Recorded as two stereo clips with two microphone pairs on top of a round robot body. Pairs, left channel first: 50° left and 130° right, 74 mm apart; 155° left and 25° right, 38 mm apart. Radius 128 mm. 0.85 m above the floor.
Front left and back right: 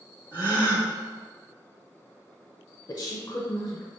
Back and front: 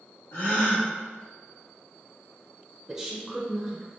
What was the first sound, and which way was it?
A gasp, 165° left.